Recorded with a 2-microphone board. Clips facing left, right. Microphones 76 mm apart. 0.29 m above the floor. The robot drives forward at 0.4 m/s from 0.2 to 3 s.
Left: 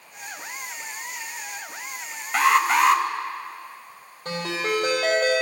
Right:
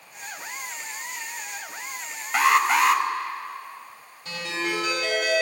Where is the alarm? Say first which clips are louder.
Left 1 dB; centre (ahead or behind), 0.8 m.